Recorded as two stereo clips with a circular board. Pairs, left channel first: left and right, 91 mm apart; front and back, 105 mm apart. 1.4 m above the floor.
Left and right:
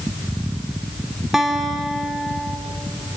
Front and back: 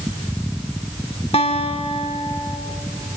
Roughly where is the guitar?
Ahead.